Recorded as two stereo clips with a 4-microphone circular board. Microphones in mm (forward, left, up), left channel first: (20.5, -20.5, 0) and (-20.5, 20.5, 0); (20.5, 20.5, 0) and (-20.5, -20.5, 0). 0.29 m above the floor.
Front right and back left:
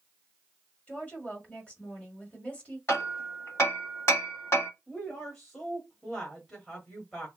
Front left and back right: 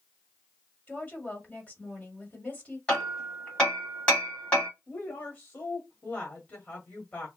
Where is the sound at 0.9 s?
Straight ahead, 1.4 m.